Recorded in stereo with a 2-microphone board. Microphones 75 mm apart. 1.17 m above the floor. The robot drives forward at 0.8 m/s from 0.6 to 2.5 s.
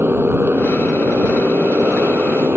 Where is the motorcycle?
30° right (ahead or behind).